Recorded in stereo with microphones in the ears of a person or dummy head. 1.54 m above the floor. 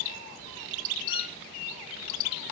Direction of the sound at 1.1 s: 55° left (ahead or behind).